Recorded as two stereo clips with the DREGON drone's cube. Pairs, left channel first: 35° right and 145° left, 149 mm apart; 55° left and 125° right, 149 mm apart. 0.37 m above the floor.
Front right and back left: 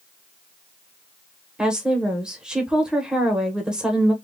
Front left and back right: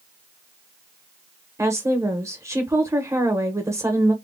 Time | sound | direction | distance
1.6 | a woman speaking | 140° right | 0.8 m